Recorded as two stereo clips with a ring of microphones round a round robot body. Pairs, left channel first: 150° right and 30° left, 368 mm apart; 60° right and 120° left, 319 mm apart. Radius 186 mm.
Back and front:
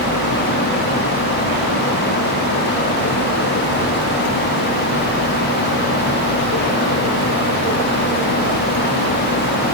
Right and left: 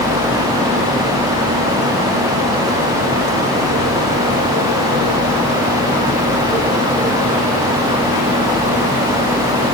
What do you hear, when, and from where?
Only background noise.